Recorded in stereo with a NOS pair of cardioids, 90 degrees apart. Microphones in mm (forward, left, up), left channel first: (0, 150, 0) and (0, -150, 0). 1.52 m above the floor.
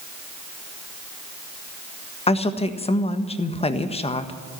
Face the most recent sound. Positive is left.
turn(degrees=20)